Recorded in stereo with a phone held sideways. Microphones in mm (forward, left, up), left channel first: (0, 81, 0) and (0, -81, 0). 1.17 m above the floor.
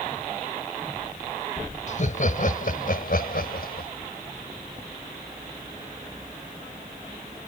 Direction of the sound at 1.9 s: 50° left (ahead or behind).